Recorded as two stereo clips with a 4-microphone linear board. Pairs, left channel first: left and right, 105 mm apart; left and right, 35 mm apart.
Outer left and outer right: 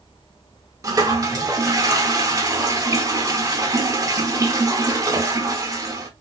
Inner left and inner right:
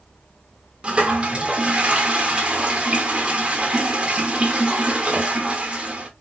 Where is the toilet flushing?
30° right (ahead or behind), 0.9 m.